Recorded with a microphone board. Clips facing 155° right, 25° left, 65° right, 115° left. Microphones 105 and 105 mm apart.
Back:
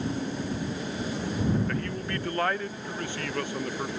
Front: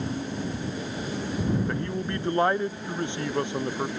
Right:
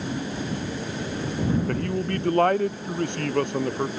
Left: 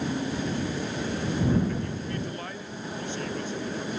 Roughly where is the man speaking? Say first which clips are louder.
Front 2 dB, right 5 dB; ahead right.